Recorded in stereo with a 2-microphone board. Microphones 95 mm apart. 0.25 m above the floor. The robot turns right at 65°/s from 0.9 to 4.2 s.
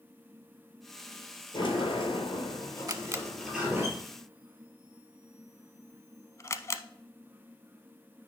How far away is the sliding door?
About 3 m.